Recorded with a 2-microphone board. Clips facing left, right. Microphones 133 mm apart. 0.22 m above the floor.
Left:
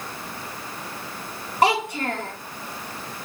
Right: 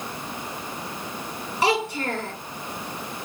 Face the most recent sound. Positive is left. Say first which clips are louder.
# left 2 dB
turn(degrees=55)  # may be behind; listen again after turning